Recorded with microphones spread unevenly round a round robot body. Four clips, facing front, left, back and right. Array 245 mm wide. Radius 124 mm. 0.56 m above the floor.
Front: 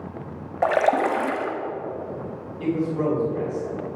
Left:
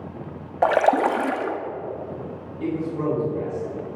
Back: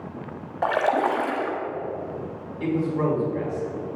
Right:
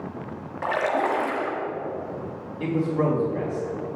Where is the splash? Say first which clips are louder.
Left 6 dB, front 2 dB; 55° left, 1.1 m.